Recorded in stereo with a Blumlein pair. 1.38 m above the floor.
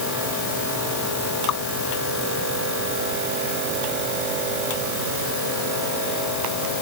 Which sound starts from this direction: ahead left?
Dripping, at 1.5 s.